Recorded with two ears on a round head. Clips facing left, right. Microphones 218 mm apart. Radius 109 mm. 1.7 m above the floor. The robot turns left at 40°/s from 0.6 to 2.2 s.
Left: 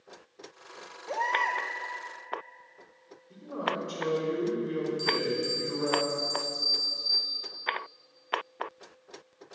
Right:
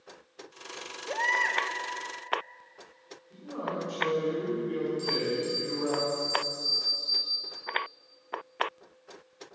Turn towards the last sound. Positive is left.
turn(degrees=15)  # may be behind; listen again after turning